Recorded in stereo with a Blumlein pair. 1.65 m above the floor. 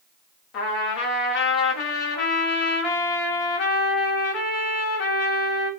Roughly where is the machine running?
No machine running in this recording.